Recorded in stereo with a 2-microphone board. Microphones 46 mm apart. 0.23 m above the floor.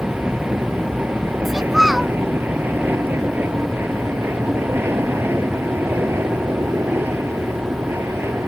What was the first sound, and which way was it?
An aircraft, 35° right (ahead or behind).